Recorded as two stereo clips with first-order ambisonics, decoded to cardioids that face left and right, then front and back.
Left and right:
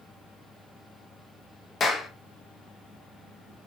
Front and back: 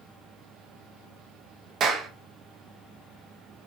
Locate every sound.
1.8 s a clap: 145° left, 0.7 m